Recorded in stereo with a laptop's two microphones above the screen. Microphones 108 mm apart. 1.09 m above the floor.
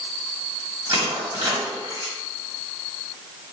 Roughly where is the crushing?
Right.